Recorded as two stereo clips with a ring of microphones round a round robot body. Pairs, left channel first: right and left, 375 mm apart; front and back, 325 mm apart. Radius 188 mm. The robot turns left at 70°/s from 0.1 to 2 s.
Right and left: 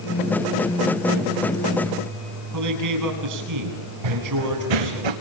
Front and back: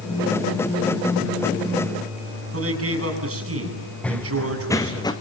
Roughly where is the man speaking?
Behind left.